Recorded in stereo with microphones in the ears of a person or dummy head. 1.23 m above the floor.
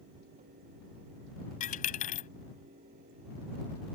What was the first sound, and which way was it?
A dropped coin, 40° left (ahead or behind).